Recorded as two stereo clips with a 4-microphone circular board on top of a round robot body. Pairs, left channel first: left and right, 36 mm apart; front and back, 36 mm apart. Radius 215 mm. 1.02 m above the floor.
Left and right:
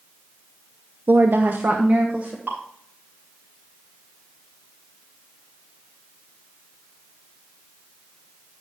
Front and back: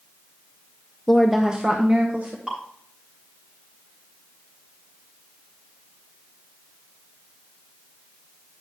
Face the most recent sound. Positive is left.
turn(degrees=-115)